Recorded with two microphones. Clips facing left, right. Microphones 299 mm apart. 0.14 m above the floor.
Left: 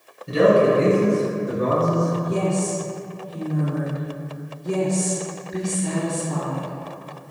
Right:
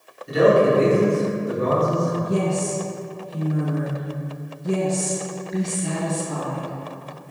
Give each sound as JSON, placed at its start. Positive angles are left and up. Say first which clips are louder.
{"t": 0.3, "sound": "a man speaking", "louder": "even", "side_deg": 35, "distance_m": 1.4}
{"t": 2.2, "sound": "a woman speaking", "louder": "even", "side_deg": 0, "distance_m": 1.4}